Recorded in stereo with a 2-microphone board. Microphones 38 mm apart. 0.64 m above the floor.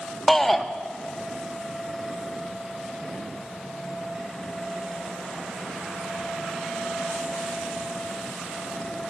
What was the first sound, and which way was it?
A shout, 5° left (ahead or behind).